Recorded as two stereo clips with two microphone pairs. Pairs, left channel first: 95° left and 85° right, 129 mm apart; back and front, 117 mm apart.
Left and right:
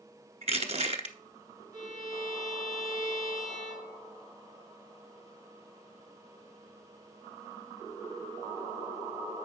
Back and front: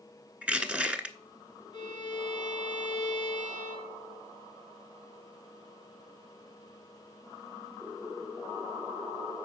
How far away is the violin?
About 2.5 m.